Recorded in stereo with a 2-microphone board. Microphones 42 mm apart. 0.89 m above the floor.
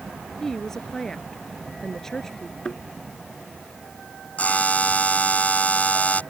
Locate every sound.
0.4 s a woman speaking: 10° left (ahead or behind)
2.6 s a thud: 20° left (ahead or behind)
4.4 s a buzzer: 35° left (ahead or behind)